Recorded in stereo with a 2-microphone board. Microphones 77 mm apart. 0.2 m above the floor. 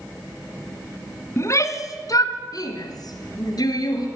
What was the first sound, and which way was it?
A shout, 40° left (ahead or behind).